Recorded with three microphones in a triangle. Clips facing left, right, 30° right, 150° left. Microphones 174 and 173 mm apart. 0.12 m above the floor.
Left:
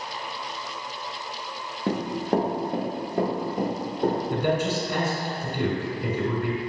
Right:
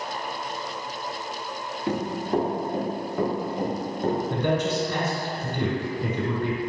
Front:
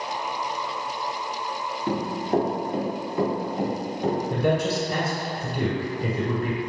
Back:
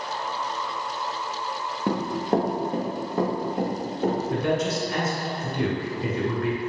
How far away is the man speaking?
About 1.4 m.